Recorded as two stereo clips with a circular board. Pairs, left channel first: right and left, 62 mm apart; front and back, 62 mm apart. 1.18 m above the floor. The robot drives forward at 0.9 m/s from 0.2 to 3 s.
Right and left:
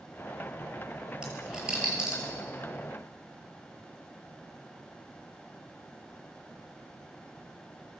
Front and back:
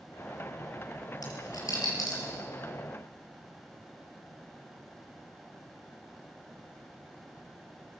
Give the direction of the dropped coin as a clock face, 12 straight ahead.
12 o'clock.